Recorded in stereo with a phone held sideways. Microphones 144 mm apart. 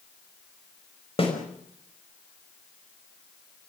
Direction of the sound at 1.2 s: 40° left (ahead or behind).